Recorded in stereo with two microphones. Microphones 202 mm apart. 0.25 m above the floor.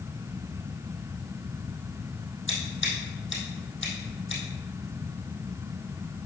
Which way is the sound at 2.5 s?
70° left (ahead or behind).